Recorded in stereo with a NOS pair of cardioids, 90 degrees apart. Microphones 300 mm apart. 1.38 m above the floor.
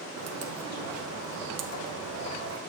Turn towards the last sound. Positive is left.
turn(degrees=-55)